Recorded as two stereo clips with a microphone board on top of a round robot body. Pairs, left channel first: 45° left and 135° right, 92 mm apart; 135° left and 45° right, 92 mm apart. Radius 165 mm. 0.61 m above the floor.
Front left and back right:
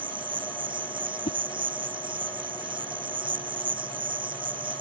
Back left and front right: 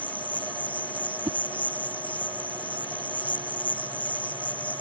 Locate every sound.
0.0 s an insect: 150° right
1.2 s a whoosh: 20° left